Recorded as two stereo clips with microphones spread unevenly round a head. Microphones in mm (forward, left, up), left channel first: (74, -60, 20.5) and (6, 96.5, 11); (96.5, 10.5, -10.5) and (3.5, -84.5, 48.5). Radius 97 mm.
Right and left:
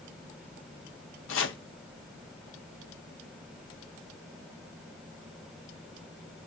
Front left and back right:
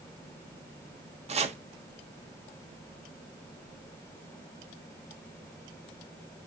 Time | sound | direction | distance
1.3 | chopping | 95° right | 1.4 m